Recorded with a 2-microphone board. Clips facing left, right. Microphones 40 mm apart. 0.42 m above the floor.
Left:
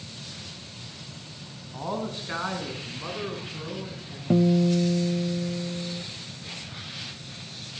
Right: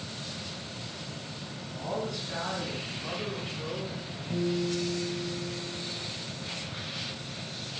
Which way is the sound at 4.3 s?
90° left.